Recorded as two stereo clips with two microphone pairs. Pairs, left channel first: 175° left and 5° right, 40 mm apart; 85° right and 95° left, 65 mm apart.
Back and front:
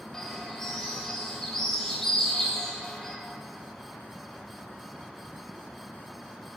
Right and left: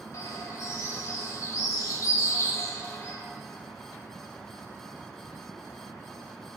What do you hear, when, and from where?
0.1 s a bird: 115° right, 1.9 m